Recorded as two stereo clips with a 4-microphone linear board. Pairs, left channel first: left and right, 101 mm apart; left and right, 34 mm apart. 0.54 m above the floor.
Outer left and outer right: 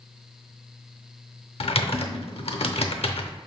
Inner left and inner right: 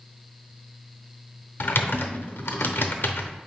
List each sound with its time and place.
1.6 s typing on a keyboard: 75° left (ahead or behind), 0.7 m